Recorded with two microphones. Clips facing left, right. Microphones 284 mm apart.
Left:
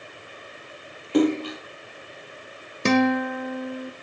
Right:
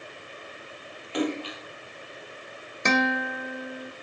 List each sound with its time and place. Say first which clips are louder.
1.1 s a splash: left 8 dB; 55° left (ahead or behind), 2 m
2.9 s a guitar: left 7 dB; 35° left (ahead or behind), 1.4 m